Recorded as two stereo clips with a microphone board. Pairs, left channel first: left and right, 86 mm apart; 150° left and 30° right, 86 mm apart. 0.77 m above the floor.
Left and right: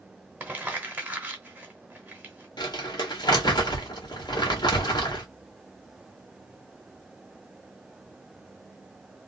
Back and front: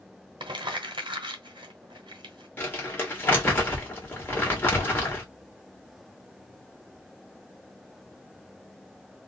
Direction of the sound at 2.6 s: 85° left.